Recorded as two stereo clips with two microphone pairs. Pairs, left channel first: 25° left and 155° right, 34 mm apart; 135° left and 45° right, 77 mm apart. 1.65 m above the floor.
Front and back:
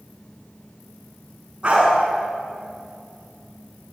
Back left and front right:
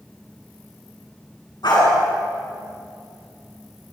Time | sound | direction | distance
1.6 | a dog barking | 145° left | 8 m